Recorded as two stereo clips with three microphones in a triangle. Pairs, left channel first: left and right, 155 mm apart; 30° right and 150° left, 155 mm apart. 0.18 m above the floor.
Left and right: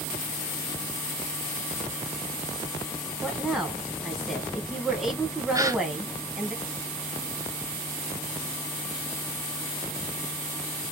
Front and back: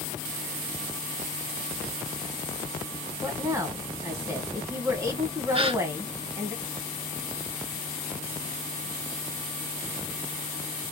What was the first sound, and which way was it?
A woman speaking, 170° right.